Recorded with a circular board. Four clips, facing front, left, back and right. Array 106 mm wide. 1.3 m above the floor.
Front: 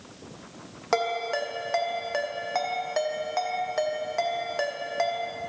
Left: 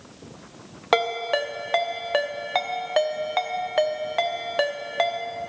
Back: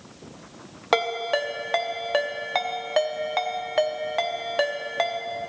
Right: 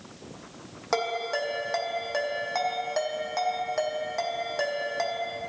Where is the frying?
I don't hear frying.